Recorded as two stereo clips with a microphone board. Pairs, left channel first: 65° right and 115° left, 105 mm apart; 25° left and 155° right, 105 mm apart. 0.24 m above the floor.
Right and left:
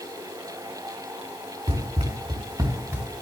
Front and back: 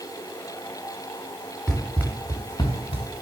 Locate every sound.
1.7 s running footsteps: 105° left, 2 m; by 3.1 s 45° left, 1.9 m